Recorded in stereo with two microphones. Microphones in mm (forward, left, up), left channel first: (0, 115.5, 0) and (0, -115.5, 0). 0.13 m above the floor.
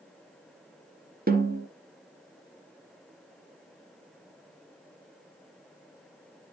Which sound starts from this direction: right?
A snare drum, at 1.3 s.